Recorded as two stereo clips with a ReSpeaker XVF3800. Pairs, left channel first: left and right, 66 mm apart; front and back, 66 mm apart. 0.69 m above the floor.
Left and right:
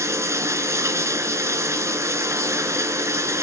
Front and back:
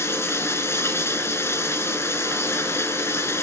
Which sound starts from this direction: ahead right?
Running water, at 0.0 s.